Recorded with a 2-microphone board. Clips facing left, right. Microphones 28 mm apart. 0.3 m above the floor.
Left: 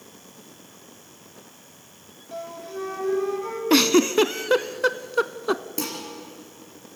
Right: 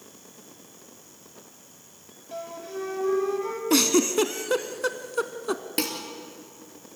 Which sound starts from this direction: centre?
A flute, at 2.3 s.